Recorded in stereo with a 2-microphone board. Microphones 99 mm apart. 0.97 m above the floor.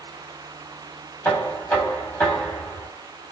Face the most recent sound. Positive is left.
turn(degrees=20)  # may be behind; listen again after turning